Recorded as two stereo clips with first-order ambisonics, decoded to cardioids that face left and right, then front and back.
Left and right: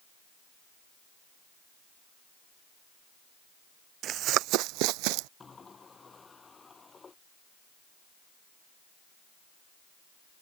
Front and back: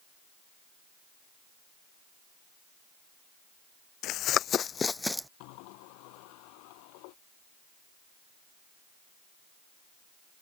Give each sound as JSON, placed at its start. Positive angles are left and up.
{"t": 4.0, "sound": "running footsteps", "azimuth_deg": -40}
{"t": 5.4, "sound": "a sliding door", "azimuth_deg": 15}